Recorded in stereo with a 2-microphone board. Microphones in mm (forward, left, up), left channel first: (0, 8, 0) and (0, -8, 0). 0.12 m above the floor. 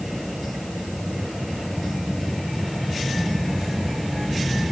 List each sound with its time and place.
Only background noise.